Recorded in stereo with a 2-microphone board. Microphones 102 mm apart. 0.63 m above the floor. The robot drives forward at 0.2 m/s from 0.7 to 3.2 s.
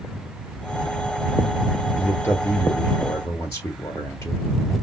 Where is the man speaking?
30° left (ahead or behind), 2 m.